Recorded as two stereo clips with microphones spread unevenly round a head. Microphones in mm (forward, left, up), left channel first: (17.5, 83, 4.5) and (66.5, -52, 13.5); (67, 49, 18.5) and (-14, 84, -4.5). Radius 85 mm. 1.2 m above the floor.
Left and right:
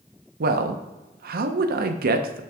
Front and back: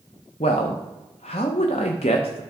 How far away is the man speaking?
About 0.8 m.